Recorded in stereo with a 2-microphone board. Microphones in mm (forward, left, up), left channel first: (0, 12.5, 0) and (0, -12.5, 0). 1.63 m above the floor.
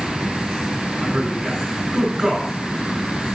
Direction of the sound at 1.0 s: 35° right (ahead or behind).